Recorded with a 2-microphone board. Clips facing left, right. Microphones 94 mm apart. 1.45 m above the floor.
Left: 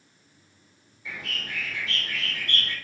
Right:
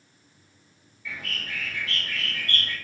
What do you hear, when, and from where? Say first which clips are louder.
1.1 s a bird: even; 25° left (ahead or behind), 3.5 m